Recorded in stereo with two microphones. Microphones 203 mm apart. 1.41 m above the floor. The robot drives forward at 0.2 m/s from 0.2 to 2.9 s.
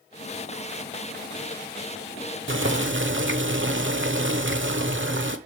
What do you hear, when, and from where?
2.5 s boiling: 70° right (ahead or behind), 0.9 m